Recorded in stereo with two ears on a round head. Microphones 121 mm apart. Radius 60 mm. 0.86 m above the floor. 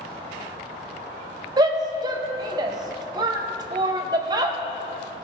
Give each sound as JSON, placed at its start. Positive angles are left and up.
{"t": 1.6, "sound": "a shout", "side_deg": -30, "distance_m": 0.7}